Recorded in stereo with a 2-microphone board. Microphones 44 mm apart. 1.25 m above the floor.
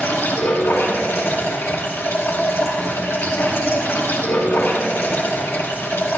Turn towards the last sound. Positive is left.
turn(degrees=75)  # may be behind; listen again after turning